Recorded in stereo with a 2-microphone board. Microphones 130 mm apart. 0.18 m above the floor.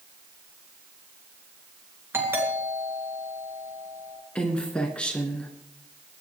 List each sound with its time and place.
2.1 s a doorbell: 15° right (ahead or behind), 3.5 m
4.3 s a woman speaking: 10° left (ahead or behind), 1.9 m